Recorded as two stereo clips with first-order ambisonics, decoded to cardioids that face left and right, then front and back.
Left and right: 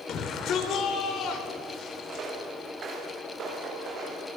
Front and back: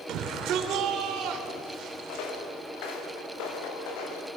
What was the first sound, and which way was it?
A shout, 140° left.